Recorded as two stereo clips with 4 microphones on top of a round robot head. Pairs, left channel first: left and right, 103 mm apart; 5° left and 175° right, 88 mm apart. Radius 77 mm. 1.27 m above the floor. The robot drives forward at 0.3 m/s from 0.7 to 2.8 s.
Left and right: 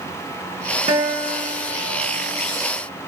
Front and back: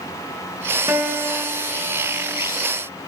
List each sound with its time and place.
0.9 s a guitar: 115° right, 1.0 m; by 2.3 s 140° right, 1.2 m